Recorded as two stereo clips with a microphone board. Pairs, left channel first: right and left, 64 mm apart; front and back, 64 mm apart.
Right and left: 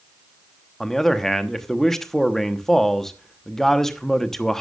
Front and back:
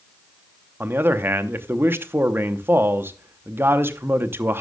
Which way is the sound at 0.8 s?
170° right.